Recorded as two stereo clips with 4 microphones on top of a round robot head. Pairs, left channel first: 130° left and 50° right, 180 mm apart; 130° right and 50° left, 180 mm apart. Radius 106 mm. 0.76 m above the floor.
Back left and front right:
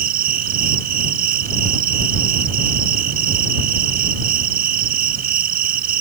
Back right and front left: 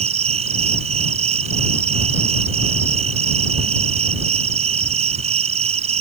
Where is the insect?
5° right.